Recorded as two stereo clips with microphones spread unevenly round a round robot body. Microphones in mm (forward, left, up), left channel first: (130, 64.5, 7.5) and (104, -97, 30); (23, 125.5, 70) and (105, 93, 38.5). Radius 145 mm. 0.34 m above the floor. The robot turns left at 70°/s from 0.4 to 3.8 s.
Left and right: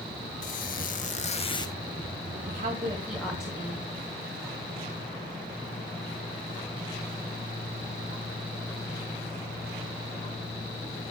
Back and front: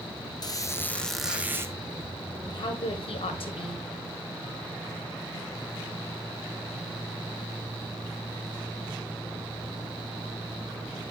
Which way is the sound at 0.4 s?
110° left.